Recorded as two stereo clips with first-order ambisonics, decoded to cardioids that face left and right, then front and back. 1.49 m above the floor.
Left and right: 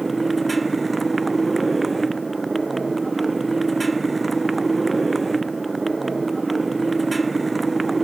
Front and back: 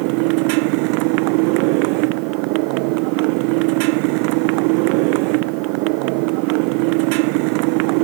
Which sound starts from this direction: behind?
A motorcycle, at 0.0 s.